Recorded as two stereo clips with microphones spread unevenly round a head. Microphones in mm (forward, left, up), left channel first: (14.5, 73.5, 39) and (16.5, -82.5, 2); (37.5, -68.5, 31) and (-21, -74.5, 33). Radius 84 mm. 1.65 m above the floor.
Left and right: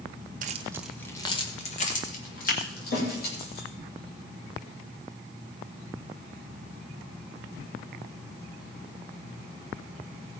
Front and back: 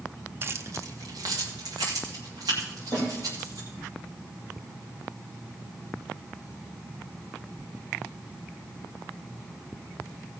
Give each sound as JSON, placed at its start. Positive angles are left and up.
{"t": 0.4, "sound": "keys jangling", "azimuth_deg": -135, "distance_m": 0.8}
{"t": 2.9, "sound": "a snare drum", "azimuth_deg": 70, "distance_m": 5.5}